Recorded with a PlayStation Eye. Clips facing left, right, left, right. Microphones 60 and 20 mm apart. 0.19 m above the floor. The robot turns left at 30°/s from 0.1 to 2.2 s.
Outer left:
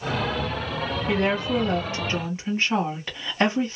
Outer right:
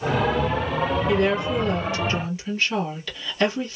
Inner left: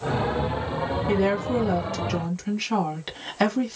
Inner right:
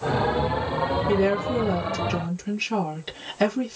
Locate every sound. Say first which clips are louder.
1.1 s a woman speaking: outer left 1 dB, inner left 1 dB; 105° left, 1.2 m; by 3.8 s 75° left, 1.2 m